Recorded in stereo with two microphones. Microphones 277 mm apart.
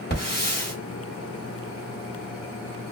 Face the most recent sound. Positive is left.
turn(degrees=35)  # may be behind; listen again after turning